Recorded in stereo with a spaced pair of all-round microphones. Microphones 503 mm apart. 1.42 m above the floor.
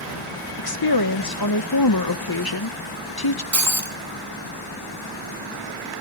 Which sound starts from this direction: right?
Breaking glass, at 3.5 s.